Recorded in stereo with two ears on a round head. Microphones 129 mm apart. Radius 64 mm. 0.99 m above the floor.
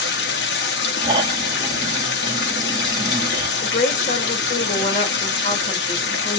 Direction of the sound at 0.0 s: 85° left.